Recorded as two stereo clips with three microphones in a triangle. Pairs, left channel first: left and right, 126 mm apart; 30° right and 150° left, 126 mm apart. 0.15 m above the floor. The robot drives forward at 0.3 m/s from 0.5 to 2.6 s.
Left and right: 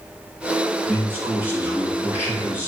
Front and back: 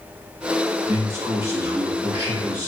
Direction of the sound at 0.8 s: 155° right.